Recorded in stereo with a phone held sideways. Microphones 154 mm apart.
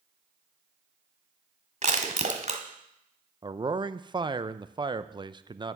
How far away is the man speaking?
About 0.5 m.